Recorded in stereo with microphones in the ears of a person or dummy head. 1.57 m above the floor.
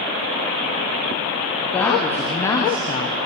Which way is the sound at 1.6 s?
10° left (ahead or behind).